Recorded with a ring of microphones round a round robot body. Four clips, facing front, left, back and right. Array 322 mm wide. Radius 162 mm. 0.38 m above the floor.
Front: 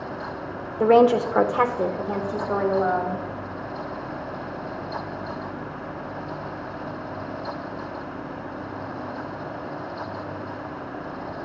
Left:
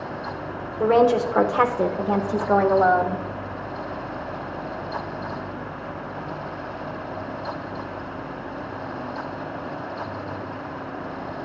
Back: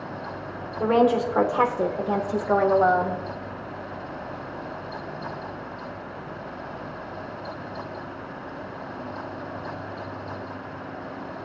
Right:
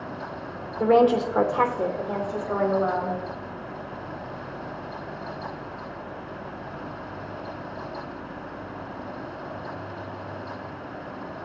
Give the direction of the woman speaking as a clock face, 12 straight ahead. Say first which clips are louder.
Left 1 dB, front 4 dB; 12 o'clock.